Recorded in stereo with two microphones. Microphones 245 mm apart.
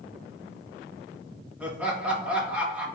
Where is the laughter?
5° right (ahead or behind), 1.3 m.